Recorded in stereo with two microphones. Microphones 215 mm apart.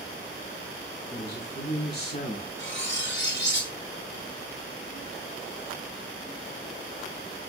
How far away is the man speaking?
About 3.5 m.